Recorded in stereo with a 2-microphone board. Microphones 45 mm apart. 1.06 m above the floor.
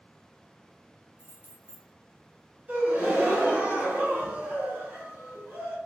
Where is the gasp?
40° right (ahead or behind), 1.4 m.